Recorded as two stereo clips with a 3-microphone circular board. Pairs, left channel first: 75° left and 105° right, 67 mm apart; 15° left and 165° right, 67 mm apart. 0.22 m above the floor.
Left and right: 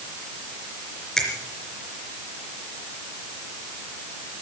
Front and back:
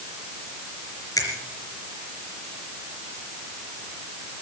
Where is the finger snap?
5° right, 3.5 m.